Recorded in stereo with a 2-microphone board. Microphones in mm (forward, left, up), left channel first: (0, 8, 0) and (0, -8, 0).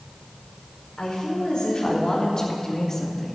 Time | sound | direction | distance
1.0 | a woman speaking | 50° left (ahead or behind) | 4 m